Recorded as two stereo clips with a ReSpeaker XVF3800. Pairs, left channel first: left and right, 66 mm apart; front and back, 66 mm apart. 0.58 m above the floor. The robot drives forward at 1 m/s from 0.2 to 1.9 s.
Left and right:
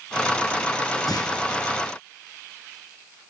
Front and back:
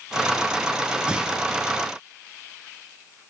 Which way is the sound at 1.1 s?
105° left.